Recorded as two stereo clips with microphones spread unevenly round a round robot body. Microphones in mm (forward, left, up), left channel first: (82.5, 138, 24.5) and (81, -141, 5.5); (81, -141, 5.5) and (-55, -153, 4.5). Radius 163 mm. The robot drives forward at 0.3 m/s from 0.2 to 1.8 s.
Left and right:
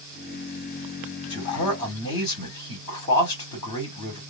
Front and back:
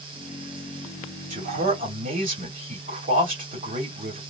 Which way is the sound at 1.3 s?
165° left.